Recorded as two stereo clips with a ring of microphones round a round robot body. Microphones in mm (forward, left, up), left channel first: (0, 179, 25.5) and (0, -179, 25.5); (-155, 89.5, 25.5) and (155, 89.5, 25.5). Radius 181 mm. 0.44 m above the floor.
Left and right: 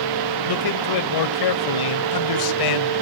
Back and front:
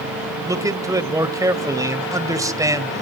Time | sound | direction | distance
0.5 | a man speaking | 80° left | 2.0 m